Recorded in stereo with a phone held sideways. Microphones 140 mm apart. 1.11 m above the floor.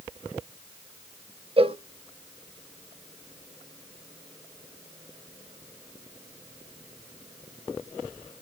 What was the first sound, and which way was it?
A cowbell, 40° right (ahead or behind).